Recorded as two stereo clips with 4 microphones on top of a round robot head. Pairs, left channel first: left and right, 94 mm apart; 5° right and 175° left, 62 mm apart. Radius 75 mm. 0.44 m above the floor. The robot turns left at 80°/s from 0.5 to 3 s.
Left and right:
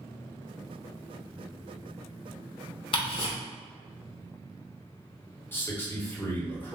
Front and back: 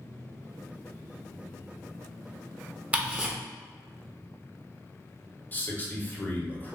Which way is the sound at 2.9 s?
110° left.